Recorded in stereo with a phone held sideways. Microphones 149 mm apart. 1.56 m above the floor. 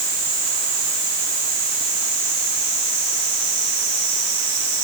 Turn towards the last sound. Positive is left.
No sound to turn to.